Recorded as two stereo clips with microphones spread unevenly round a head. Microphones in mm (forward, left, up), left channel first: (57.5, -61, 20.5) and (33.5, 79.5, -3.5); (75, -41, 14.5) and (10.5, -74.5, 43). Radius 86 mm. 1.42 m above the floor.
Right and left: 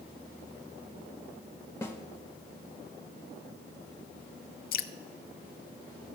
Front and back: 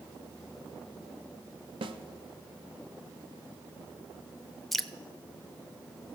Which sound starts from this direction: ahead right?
Dripping, at 4.7 s.